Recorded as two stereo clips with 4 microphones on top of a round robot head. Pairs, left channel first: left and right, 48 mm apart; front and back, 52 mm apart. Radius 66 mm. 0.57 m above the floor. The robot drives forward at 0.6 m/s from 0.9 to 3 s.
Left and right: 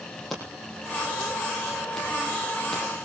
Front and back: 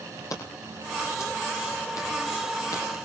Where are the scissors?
5° left, 9.5 m.